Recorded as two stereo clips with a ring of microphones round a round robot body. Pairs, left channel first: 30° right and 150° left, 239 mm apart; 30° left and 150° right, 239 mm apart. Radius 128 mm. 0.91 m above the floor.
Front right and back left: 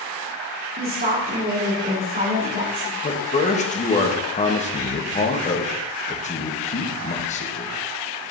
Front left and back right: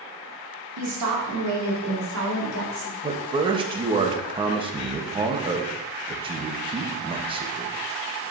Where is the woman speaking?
155° right, 2 m; by 2.9 s 160° right, 3.5 m.